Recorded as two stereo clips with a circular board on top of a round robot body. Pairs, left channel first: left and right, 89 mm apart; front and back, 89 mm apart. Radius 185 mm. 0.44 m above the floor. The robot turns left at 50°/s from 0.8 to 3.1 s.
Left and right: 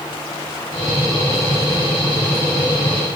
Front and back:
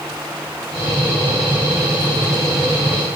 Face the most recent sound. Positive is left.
No sound to turn to.